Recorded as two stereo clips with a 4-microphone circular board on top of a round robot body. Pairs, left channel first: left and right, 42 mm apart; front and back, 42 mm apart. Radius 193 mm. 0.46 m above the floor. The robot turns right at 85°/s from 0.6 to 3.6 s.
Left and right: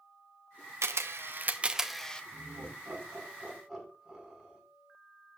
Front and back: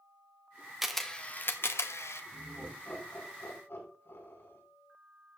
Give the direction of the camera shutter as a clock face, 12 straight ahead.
3 o'clock.